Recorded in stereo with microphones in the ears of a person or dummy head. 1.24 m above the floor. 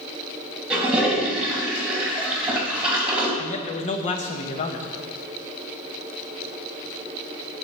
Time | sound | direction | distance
0.7 | a toilet flushing | 5° right (ahead or behind) | 2 m
3.4 | a man speaking | 35° left (ahead or behind) | 1.0 m